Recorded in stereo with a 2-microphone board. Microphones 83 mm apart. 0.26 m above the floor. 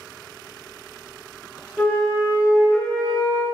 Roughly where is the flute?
Centre.